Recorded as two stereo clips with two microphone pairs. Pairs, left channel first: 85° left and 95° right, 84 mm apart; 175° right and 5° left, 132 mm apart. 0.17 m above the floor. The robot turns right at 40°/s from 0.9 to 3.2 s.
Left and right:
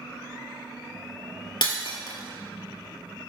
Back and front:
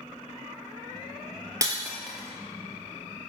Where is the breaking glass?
70° left, 2 m; by 3.3 s 135° left, 2 m.